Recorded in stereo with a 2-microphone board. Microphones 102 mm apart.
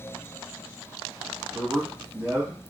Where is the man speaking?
20° right (ahead or behind), 1.5 m.